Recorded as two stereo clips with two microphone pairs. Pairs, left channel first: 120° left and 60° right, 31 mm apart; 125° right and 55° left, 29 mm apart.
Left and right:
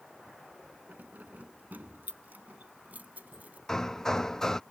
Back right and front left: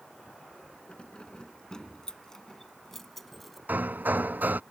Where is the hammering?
45° left.